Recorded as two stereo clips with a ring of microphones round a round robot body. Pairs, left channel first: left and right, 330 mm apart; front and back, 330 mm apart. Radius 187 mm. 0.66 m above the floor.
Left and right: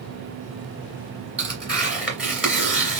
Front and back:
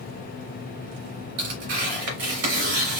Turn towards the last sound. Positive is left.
turn(degrees=-175)